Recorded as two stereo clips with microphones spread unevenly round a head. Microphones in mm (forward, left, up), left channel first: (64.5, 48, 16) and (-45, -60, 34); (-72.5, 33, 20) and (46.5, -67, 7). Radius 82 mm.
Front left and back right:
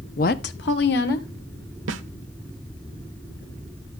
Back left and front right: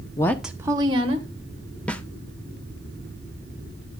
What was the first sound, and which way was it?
A woman speaking, 80° left.